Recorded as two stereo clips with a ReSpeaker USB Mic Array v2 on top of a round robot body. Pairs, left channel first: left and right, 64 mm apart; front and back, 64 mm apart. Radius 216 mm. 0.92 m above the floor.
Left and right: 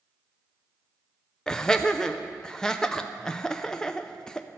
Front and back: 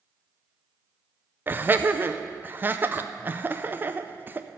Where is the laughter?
160° left, 0.7 m.